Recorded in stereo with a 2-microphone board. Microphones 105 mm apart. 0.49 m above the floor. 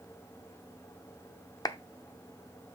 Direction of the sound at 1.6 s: 35° left (ahead or behind).